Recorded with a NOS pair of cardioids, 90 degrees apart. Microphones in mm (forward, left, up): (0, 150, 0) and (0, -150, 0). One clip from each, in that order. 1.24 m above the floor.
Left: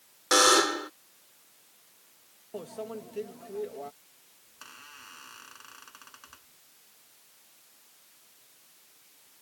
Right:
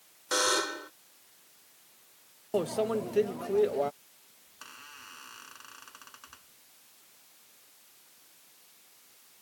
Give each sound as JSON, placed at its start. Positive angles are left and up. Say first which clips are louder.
{"t": 0.3, "sound": "a buzzer", "louder": "left 7 dB", "azimuth_deg": 50}
{"t": 2.5, "sound": "a microwave", "louder": "right 10 dB", "azimuth_deg": -55}
{"t": 4.5, "sound": "a squeak", "louder": "even", "azimuth_deg": 0}